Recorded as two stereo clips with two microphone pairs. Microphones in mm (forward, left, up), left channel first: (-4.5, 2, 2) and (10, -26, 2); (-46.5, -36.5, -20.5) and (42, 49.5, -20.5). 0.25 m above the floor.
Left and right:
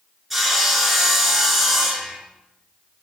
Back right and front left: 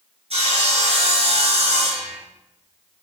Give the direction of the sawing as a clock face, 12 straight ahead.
11 o'clock.